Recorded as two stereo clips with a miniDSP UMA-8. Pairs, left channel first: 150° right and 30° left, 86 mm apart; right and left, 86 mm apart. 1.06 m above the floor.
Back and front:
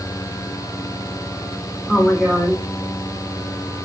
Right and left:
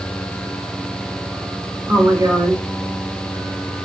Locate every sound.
1.9 s a woman speaking: 125° left, 1.2 m